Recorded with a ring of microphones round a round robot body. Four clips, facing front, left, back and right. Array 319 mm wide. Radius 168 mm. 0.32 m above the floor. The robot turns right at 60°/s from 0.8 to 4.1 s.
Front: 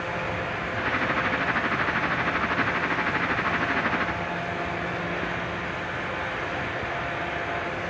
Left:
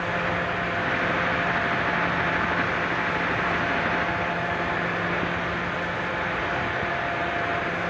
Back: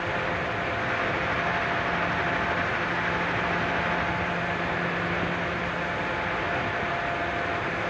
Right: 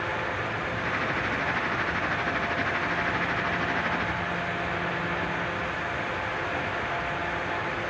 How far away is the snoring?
I don't hear snoring.